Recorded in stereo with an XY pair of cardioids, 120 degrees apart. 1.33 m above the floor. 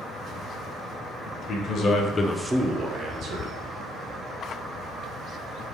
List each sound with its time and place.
1.3 s a man speaking: 60° left, 1.2 m; by 3.5 s 65° right, 1.2 m